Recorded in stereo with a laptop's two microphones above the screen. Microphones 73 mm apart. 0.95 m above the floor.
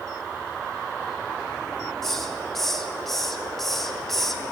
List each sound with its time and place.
2.0 s a hiss: 5° left (ahead or behind), 0.8 m